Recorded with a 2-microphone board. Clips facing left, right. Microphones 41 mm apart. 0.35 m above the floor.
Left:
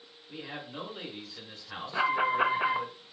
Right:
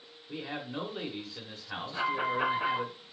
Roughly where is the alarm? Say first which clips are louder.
Left 4 dB; left.